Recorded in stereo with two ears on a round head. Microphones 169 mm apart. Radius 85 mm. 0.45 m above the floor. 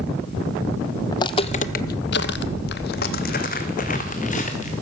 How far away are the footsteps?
About 0.8 m.